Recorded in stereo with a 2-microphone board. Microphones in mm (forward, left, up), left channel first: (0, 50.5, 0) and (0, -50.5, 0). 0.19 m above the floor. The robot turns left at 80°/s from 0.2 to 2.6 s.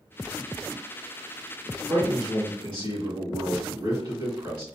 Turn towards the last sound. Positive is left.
turn(degrees=-95)